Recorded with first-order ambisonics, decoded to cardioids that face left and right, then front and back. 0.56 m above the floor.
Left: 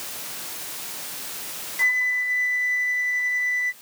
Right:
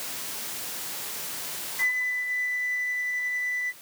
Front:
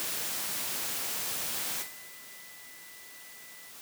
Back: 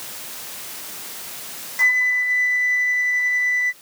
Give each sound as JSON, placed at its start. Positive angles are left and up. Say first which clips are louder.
{"t": 1.8, "sound": "a flute", "louder": "left 5 dB, back 30 dB", "azimuth_deg": 165}